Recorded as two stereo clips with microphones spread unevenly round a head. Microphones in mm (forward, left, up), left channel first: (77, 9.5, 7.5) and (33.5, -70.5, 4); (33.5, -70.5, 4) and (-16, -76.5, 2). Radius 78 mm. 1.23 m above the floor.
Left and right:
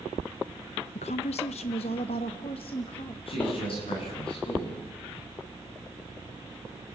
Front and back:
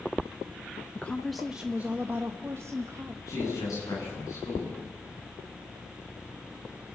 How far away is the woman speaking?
About 0.5 m.